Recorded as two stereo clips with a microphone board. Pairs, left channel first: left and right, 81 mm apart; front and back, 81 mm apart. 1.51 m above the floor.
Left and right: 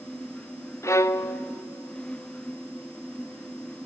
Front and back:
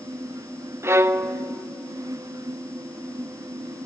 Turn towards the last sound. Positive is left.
turn(degrees=130)